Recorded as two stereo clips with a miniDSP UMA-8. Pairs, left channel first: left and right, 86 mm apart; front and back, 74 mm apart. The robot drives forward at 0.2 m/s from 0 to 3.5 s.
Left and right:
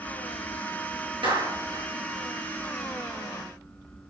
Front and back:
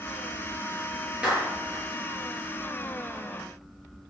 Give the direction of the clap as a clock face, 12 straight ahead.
3 o'clock.